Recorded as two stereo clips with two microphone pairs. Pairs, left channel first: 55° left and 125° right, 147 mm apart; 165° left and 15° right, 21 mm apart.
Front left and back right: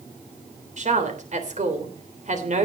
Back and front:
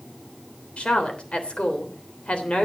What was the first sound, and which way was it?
A woman speaking, 160° right.